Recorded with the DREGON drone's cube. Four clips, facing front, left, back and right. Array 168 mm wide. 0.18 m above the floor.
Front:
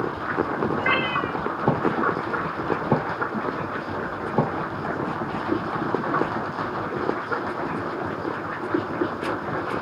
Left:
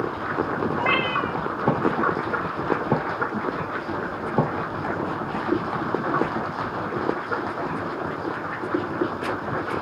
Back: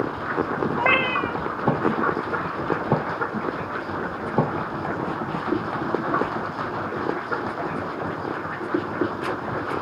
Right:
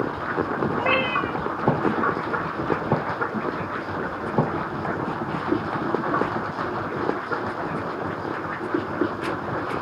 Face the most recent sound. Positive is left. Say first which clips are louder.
# right 1 dB, back 2 dB
turn(degrees=165)